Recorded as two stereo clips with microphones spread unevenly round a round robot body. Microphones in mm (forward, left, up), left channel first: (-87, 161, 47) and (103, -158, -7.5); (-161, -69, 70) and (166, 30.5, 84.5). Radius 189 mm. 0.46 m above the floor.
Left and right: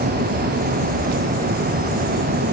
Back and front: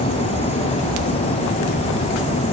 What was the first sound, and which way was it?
Only background noise.